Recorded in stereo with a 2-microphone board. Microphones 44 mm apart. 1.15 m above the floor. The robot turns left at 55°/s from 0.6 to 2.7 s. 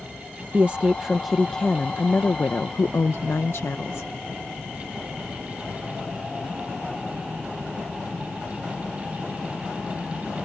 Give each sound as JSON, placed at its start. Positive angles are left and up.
{"t": 0.5, "sound": "a woman speaking", "azimuth_deg": -140}